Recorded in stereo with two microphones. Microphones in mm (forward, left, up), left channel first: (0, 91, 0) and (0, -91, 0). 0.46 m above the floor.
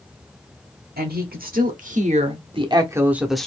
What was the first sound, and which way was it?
A woman speaking, 55° right (ahead or behind).